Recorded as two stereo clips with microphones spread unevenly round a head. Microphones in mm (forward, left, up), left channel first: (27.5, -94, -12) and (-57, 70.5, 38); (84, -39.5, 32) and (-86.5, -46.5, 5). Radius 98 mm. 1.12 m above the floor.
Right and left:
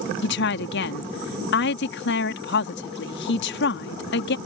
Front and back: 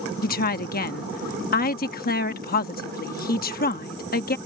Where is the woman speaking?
35° right.